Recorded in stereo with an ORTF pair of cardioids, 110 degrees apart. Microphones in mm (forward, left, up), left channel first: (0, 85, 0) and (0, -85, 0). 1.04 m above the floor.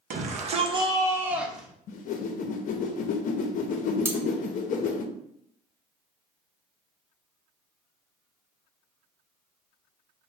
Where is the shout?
60° right, 0.8 m; by 1.7 s straight ahead, 1.1 m.